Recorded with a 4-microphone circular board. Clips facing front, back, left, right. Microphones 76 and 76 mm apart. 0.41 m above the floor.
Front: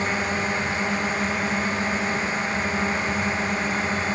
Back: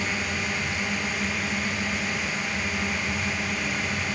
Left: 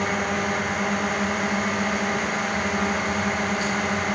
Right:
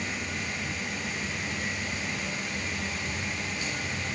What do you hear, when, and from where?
0.0 s a drone: 60° left